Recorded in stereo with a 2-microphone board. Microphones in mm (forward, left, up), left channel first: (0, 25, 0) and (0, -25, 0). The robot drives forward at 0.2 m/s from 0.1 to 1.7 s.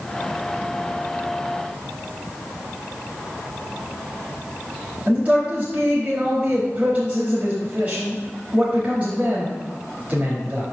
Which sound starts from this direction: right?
A man speaking, at 5.1 s.